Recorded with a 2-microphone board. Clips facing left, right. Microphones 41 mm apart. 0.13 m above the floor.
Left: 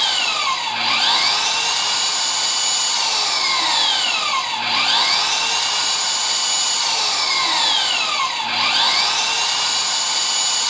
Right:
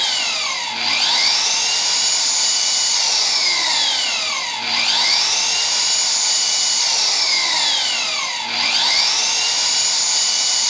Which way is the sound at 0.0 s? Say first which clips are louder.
Left 2 dB; 20° left (ahead or behind).